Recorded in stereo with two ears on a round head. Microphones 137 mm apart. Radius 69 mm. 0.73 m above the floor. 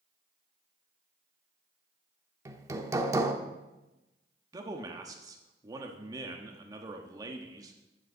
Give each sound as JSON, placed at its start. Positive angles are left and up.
{"t": 2.5, "sound": "hammering", "side_deg": -20, "distance_m": 1.0}
{"t": 4.5, "sound": "a man speaking", "side_deg": -25, "distance_m": 1.3}